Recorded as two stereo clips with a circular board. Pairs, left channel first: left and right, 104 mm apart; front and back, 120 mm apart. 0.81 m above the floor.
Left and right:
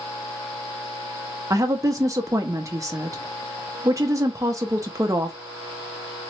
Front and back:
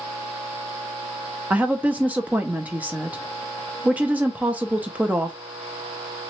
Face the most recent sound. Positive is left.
turn(degrees=-115)